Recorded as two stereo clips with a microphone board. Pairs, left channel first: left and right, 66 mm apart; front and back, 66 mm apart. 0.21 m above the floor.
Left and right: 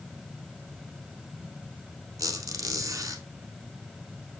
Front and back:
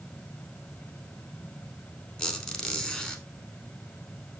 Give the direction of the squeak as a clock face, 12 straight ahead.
3 o'clock.